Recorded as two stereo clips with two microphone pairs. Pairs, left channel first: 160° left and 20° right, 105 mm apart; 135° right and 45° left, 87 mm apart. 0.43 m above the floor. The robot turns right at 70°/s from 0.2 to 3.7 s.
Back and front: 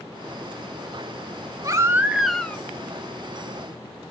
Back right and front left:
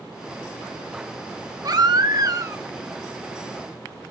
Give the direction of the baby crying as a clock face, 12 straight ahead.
11 o'clock.